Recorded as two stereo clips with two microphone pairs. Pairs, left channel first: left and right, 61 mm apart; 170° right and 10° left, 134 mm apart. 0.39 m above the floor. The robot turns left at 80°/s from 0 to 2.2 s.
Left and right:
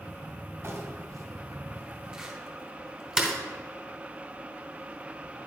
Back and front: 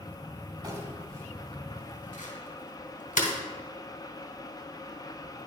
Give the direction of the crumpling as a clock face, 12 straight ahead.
1 o'clock.